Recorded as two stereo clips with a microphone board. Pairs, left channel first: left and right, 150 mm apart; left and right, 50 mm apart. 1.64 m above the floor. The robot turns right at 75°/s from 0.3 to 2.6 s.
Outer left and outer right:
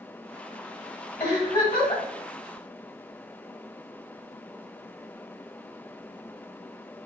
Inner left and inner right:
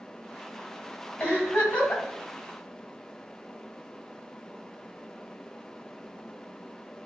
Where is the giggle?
65° left, 1.8 m; by 2.0 s 125° left, 1.8 m.